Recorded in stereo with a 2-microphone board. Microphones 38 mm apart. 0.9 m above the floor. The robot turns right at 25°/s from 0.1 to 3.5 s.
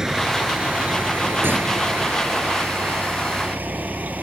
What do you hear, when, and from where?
0.0 s a vehicle: 15° right (ahead or behind); by 4.2 s 50° right (ahead or behind)